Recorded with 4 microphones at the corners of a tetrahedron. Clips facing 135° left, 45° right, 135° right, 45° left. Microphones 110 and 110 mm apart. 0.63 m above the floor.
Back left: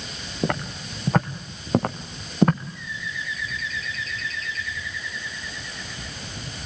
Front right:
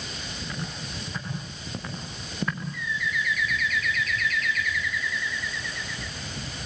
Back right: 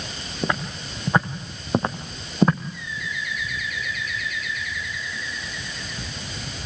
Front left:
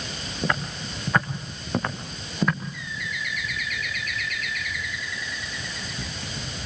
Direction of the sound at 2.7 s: 75° left.